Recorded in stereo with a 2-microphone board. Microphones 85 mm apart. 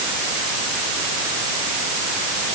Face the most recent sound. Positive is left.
No sound to turn to.